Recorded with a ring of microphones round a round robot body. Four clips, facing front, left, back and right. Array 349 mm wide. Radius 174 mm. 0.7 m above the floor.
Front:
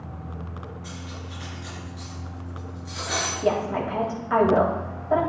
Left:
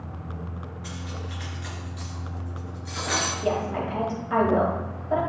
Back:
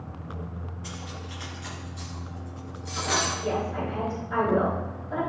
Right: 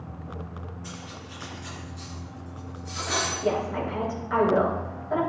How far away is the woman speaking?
About 3.5 m.